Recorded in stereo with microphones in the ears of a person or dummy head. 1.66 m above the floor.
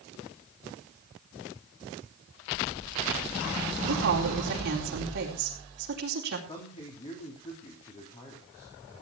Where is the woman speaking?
55° right (ahead or behind), 4 m.